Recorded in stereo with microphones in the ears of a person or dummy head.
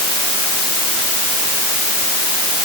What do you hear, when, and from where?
Only background noise.